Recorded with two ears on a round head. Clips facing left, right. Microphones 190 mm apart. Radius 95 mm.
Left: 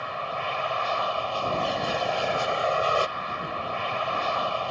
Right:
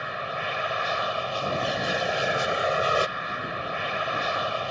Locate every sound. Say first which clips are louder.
0.0 s an aircraft: left 1 dB; 20° right (ahead or behind)